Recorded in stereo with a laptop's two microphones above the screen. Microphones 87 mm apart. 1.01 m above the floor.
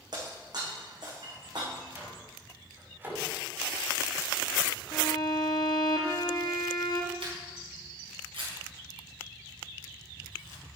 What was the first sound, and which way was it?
Breaking glass, 55° right (ahead or behind).